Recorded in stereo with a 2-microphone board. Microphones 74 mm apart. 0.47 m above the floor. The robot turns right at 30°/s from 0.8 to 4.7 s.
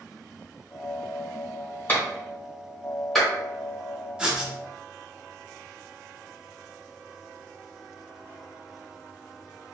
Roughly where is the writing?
Centre.